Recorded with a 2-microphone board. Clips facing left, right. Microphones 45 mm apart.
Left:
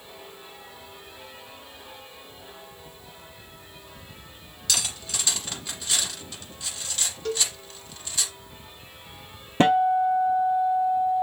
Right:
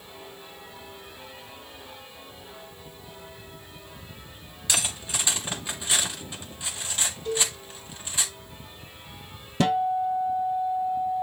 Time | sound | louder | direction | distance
4.7 | cutlery clinking | right 1 dB | 25° right (ahead or behind) | 1.8 m
7.2 | a cowbell | even | 70° left (ahead or behind) | 1.4 m
9.6 | a guitar | left 4 dB | 35° left (ahead or behind) | 1.0 m